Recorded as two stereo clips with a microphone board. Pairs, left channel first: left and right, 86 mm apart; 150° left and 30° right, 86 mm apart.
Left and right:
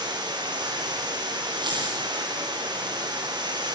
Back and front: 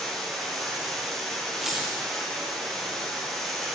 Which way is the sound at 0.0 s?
120° right.